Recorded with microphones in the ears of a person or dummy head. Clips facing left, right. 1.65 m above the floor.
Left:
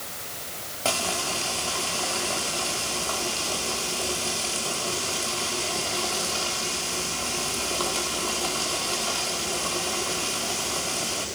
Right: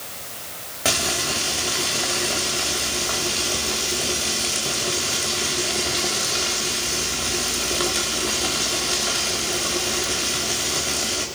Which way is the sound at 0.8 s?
15° right (ahead or behind).